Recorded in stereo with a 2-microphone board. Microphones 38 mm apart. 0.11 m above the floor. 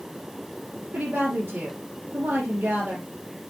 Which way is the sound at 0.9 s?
45° right (ahead or behind).